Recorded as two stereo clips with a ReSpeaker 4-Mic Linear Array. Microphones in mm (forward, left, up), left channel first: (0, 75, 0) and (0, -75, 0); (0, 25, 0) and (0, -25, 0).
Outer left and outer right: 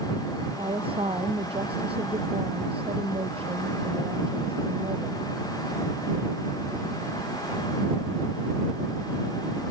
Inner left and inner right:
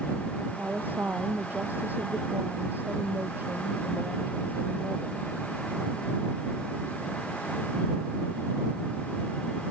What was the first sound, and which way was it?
A woman speaking, 40° right (ahead or behind).